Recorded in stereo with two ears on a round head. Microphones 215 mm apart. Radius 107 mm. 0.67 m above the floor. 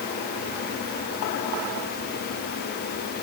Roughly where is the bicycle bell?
No bicycle bell in this recording.